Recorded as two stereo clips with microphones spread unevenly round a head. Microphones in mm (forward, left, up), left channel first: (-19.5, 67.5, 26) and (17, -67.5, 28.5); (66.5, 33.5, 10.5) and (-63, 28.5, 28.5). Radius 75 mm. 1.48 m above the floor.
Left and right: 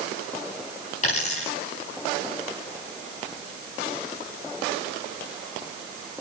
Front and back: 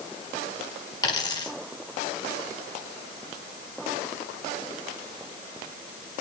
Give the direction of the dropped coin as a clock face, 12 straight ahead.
10 o'clock.